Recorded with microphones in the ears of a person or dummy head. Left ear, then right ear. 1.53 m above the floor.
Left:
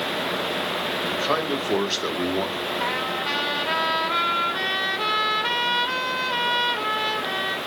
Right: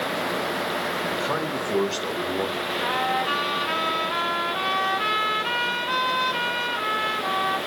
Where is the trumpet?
60° left (ahead or behind), 1.9 m.